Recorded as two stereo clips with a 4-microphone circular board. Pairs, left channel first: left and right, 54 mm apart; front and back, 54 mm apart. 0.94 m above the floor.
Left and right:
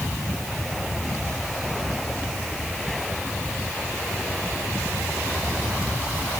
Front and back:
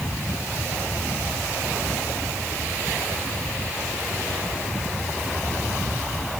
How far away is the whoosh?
I don't hear a whoosh.